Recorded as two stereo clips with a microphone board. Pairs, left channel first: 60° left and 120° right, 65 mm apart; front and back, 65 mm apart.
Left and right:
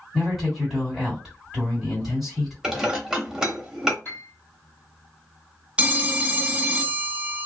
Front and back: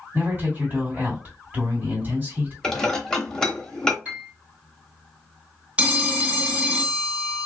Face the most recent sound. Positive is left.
turn(degrees=-150)